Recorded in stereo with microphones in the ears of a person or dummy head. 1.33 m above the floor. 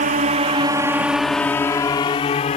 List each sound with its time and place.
0.0 s a drone: 45° right (ahead or behind); by 2.6 s 30° left (ahead or behind)